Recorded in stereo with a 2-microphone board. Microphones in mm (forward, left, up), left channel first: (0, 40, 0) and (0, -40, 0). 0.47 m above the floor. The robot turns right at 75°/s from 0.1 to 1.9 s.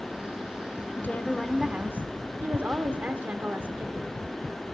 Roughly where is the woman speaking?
Behind left.